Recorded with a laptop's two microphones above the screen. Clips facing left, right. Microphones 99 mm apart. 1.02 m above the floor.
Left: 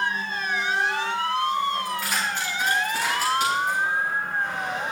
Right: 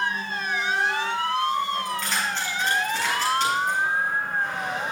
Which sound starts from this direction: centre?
Keys jangling, at 1.9 s.